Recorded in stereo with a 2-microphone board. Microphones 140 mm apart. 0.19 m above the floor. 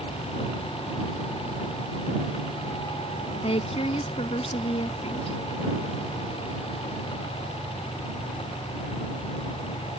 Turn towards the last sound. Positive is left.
turn(degrees=45)  # may be behind; listen again after turning